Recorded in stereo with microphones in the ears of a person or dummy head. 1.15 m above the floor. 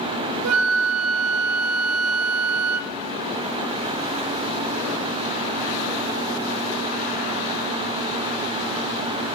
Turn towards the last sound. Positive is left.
turn(degrees=-80)